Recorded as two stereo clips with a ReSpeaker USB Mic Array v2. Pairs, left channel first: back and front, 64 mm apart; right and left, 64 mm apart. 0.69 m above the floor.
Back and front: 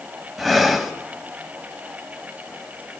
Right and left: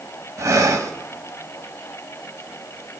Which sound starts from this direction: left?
Breathing, at 0.4 s.